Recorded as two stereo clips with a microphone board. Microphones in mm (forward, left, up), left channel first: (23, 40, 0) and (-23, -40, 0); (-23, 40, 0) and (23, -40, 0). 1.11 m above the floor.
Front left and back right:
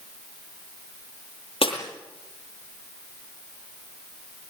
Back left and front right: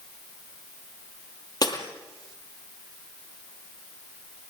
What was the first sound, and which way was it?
Breaking glass, 75° left.